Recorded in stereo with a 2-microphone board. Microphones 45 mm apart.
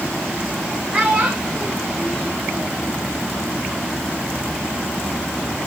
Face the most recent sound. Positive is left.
turn(degrees=-20)  # may be behind; listen again after turning